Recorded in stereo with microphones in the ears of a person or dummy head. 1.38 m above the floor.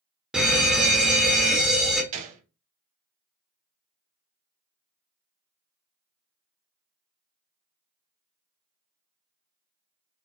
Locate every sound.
0.3 s a fire alarm: 5° right (ahead or behind), 0.8 m
2.1 s a gunshot: 40° right (ahead or behind), 0.8 m